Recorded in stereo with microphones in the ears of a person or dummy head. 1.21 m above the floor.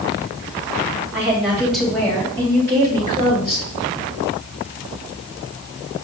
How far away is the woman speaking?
About 2 m.